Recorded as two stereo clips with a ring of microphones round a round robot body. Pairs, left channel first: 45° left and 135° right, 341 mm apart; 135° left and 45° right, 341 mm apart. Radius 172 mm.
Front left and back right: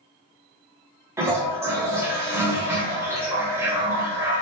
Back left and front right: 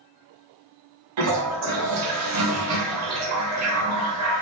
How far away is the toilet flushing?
About 0.7 m.